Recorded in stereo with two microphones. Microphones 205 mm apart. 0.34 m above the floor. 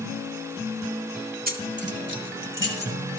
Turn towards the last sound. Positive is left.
turn(degrees=-70)  # may be behind; listen again after turning